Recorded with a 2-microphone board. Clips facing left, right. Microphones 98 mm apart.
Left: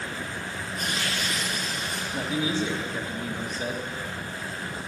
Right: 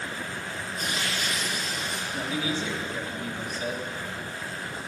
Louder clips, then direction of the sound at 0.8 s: Left 1 dB; 55° left (ahead or behind).